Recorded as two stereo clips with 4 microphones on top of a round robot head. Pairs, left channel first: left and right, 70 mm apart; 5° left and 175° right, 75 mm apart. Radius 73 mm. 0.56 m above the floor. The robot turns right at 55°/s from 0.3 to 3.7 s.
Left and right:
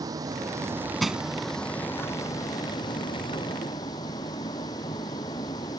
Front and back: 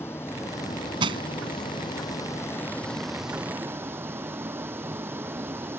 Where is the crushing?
Straight behind; by 1.2 s 170° right.